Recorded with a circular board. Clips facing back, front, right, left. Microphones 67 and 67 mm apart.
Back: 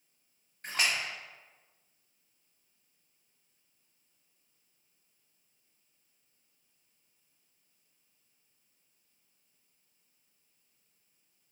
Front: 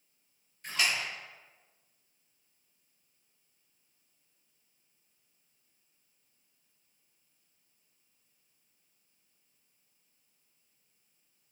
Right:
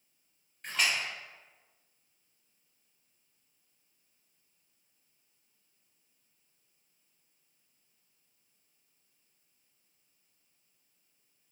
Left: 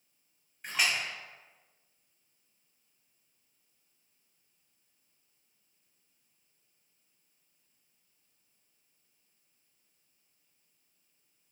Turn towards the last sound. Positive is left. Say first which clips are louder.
# even, even
turn(degrees=170)